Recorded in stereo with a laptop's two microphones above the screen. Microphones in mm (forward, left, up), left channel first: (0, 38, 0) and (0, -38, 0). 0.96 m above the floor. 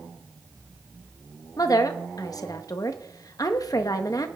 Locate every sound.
1.6 s a woman speaking: 50° left (ahead or behind), 1.2 m